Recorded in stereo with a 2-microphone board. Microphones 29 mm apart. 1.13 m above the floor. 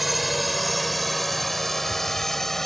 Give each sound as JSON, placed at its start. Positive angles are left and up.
{"t": 0.0, "sound": "a drone", "side_deg": -5}